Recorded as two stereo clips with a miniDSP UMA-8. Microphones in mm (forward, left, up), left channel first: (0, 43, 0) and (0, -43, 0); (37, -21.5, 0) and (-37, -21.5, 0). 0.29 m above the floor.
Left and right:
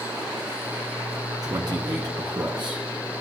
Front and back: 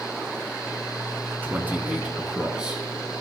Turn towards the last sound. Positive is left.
turn(degrees=-100)